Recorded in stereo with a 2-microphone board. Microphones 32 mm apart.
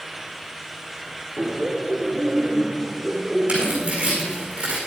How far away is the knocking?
No knocking in this recording.